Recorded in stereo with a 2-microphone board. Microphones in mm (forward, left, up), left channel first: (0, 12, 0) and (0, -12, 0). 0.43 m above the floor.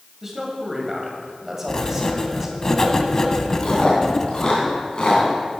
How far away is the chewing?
About 2.5 m.